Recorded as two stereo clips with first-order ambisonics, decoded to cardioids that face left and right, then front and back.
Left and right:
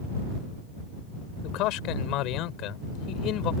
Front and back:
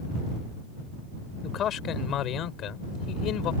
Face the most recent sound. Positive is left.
turn(degrees=45)